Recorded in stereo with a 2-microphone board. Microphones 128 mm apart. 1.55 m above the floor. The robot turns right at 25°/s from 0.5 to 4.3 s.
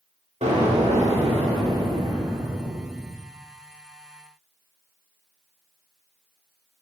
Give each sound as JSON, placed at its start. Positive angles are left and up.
{"t": 0.4, "sound": "an explosion", "azimuth_deg": -80, "distance_m": 2.0}